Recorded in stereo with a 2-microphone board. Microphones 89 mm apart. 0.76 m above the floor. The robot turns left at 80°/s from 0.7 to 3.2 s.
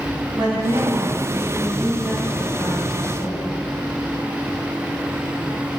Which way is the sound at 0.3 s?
90° right.